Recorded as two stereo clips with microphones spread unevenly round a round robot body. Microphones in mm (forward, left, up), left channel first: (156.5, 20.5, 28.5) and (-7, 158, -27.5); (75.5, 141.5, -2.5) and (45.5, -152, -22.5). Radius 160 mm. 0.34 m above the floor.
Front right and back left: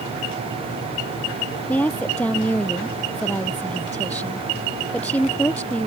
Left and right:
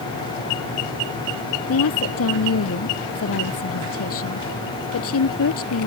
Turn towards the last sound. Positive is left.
turn(degrees=45)